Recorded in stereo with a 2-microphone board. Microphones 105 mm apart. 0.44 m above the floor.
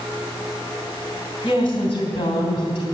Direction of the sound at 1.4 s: 55° left (ahead or behind).